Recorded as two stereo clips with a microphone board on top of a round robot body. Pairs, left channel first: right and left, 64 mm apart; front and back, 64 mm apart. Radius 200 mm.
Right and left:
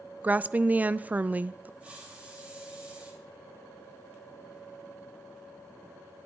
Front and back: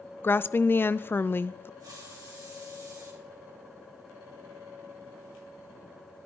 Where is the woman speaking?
35° left, 0.5 m.